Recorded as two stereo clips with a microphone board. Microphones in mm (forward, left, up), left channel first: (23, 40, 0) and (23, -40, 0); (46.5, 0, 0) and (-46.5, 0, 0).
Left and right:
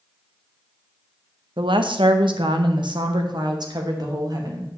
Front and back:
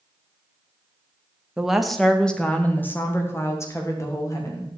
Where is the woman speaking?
95° right, 1.2 m; by 4.7 s 50° right, 2.5 m.